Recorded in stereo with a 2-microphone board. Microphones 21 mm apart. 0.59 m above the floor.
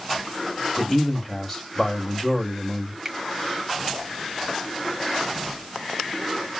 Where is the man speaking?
20° left (ahead or behind), 1.0 m.